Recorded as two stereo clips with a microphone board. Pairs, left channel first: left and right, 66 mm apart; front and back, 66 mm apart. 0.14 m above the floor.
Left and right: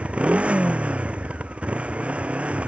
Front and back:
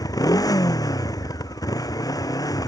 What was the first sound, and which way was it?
A motorcycle, 15° right.